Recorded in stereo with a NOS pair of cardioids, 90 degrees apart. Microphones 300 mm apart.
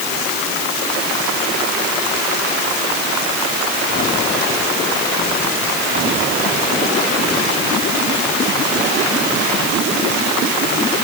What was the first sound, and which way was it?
Only background noise.